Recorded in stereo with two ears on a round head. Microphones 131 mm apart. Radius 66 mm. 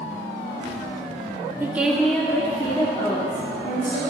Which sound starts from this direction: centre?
A woman speaking, at 1.6 s.